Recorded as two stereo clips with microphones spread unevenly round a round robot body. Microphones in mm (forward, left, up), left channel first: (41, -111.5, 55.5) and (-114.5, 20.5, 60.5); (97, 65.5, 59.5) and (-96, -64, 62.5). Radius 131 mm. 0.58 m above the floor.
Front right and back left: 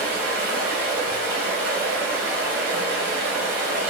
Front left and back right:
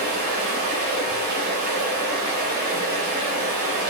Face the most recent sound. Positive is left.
turn(degrees=165)